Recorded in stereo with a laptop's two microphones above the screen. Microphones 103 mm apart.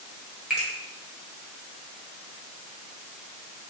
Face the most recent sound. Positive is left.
turn(degrees=-5)  # may be behind; listen again after turning